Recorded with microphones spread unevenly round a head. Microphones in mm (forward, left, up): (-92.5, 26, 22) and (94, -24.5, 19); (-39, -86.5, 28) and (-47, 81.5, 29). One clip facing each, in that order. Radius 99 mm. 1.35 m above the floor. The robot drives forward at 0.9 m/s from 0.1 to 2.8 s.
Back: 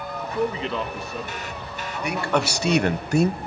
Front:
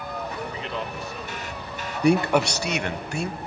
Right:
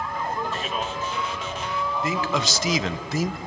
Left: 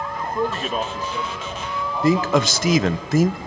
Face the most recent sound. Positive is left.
turn(degrees=120)